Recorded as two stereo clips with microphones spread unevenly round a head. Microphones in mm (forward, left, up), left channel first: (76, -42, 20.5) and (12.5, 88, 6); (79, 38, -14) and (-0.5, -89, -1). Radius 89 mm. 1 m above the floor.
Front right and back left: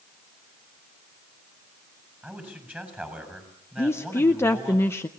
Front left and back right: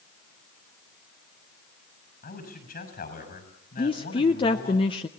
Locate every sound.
2.2 s a man speaking: 35° left, 7 m
3.8 s a woman speaking: 10° left, 0.8 m